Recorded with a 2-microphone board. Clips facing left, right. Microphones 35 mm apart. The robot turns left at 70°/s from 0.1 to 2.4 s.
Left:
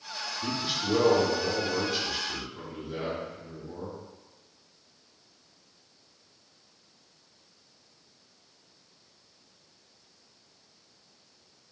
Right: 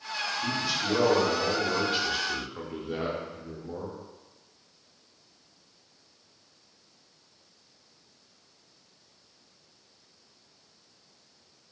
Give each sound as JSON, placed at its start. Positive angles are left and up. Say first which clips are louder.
{"t": 0.4, "sound": "a man speaking", "louder": "left 1 dB", "azimuth_deg": 45, "distance_m": 0.7}